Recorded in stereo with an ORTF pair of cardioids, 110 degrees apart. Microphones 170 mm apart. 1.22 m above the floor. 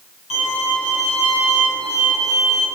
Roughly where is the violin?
Ahead left.